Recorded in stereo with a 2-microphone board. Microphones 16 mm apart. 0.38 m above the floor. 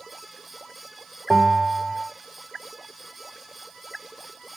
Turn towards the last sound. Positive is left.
turn(degrees=0)  # may be behind; listen again after turning